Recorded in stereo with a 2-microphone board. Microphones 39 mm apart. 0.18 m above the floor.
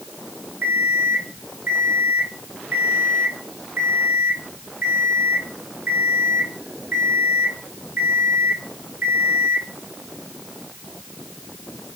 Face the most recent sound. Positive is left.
turn(degrees=-50)  # may be behind; listen again after turning